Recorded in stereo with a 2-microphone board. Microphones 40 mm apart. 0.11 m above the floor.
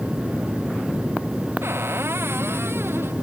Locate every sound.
1.6 s a cupboard door: 80° right